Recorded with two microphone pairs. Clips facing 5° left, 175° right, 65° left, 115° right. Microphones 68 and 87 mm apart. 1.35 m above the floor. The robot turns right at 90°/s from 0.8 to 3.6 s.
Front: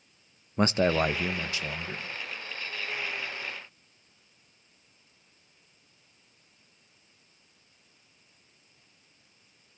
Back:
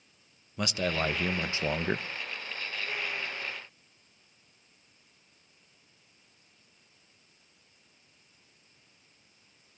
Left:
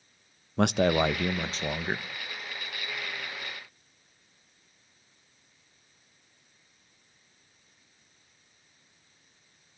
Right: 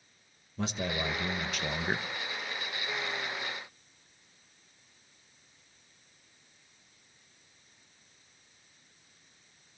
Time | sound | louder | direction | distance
0.6 | a man speaking | front 6 dB, left 10 dB | 55° left | 0.8 m